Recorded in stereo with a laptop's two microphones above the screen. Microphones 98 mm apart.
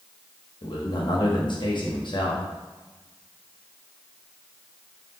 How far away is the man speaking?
About 1.1 m.